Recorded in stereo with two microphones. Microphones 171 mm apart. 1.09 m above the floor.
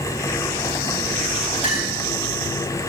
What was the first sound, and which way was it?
A clink, 40° left (ahead or behind).